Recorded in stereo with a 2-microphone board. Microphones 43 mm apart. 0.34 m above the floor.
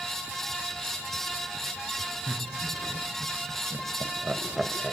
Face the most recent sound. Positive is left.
turn(degrees=-15)  # may be behind; listen again after turning